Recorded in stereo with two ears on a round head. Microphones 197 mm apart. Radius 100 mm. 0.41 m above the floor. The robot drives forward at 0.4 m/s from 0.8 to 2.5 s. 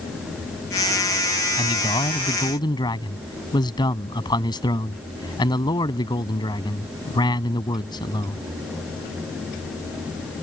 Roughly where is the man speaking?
Left.